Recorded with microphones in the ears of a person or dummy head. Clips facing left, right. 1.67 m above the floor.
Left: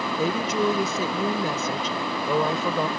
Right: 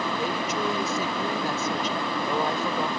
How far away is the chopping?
I don't hear chopping.